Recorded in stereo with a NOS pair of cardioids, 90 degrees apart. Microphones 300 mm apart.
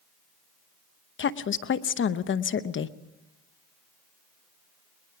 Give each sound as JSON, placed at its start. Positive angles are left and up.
{"t": 1.2, "sound": "a woman speaking", "azimuth_deg": 40, "distance_m": 0.8}